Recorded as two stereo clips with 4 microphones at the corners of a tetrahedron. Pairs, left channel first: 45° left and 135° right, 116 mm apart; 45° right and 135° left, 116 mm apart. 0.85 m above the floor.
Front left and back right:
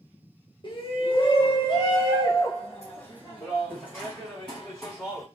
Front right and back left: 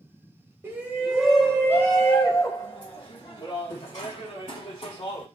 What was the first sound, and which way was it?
A shout, 70° left.